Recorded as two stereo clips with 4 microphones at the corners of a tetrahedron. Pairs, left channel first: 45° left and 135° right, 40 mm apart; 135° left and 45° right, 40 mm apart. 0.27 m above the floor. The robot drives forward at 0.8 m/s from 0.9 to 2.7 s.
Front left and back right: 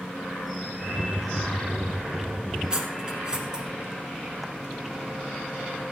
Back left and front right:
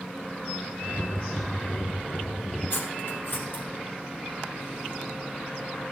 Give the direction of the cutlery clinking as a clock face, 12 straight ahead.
7 o'clock.